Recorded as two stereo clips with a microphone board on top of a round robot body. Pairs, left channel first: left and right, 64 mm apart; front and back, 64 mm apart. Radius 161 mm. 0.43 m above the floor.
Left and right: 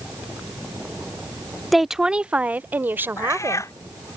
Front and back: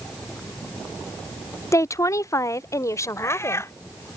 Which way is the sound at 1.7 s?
Straight ahead.